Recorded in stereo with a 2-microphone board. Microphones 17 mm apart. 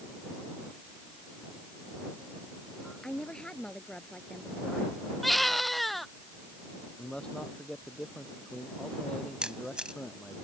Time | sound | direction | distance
3.0 | a woman speaking | 75° left (ahead or behind) | ?
5.2 | a baby crying | 5° left (ahead or behind) | ?
7.0 | a man speaking | 70° left (ahead or behind) | ?
9.4 | a camera shutter | 80° right | ?